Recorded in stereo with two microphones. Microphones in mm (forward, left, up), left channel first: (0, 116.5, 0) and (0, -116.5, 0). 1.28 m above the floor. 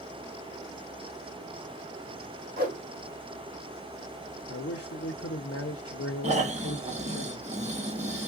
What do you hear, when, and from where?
2.6 s a whoosh: 35° right (ahead or behind), 1.4 m
4.5 s a man speaking: 75° left (ahead or behind), 0.8 m
6.2 s snoring: 30° right (ahead or behind), 0.8 m